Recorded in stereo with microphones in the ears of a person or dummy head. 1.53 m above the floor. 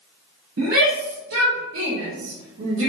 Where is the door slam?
No door slam in this recording.